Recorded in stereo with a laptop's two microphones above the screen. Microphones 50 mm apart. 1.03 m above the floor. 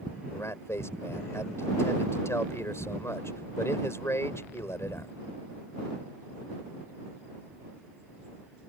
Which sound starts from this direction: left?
A man speaking, at 0.3 s.